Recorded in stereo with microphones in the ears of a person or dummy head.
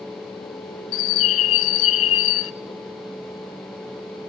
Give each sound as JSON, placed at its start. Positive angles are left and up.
{"t": 0.9, "sound": "a bird", "side_deg": 80, "distance_m": 0.6}